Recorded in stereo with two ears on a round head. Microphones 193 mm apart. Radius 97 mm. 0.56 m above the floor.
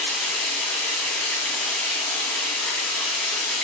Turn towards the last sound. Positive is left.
turn(degrees=5)  # may be behind; listen again after turning